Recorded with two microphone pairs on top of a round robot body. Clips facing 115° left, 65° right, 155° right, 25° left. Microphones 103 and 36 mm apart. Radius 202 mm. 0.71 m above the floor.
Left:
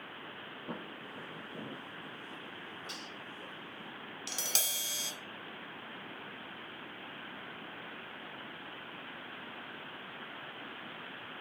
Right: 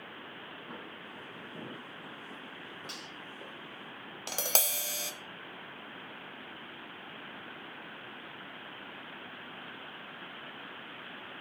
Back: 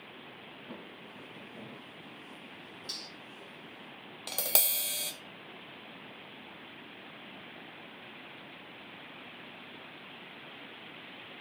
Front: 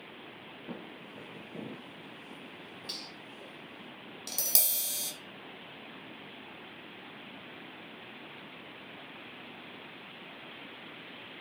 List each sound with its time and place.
0.7 s footsteps: 65° left, 1.0 m; by 3.9 s 60° right, 1.6 m
2.9 s cutlery clinking: 35° right, 4.5 m
4.3 s tapping: 105° right, 0.8 m